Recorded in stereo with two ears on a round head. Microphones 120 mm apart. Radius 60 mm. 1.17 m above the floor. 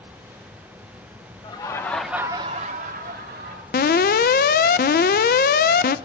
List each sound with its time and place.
1.4 s laughter: 30° left (ahead or behind), 1.6 m; by 3.6 s 80° right, 2.5 m
3.7 s an alarm: 70° left (ahead or behind), 0.6 m